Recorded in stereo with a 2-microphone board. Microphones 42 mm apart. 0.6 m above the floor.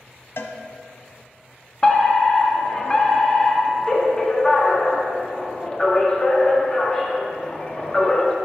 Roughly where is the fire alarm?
Left.